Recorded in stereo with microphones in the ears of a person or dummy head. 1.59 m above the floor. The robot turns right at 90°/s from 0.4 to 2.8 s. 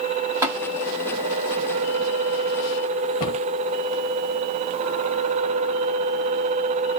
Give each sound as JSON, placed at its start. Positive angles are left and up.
{"t": 0.4, "sound": "tapping", "side_deg": -15, "distance_m": 2.5}
{"t": 3.2, "sound": "a cupboard door", "side_deg": 45, "distance_m": 1.8}